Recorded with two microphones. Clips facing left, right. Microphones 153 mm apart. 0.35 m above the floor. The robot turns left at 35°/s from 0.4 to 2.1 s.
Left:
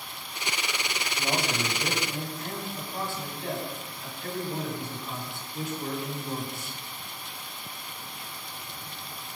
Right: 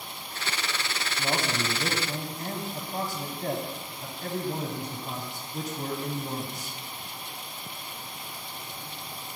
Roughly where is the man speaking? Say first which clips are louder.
Even; ahead.